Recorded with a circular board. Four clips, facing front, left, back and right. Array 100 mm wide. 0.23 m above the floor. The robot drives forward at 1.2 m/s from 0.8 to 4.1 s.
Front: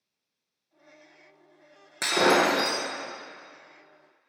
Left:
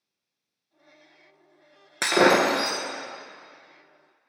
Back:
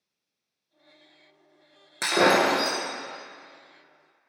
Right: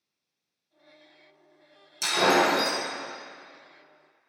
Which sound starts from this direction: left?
Breaking glass, at 2.0 s.